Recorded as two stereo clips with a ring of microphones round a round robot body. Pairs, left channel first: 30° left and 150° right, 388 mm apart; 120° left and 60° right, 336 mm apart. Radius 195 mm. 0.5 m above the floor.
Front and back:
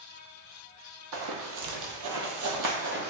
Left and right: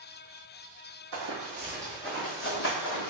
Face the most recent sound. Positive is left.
turn(degrees=150)